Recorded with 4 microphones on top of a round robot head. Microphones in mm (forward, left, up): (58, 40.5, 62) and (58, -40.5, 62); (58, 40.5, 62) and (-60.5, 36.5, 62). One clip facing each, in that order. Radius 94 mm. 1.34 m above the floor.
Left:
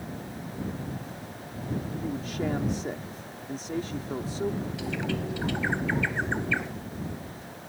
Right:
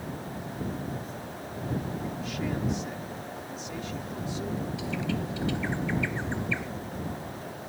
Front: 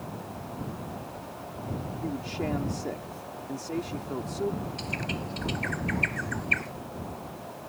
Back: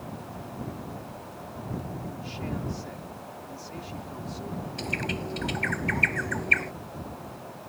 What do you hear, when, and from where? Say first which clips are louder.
2.0 s a man speaking: left 2 dB, front 5 dB; 40° left
4.8 s a bird: even, back 2 dB; 145° left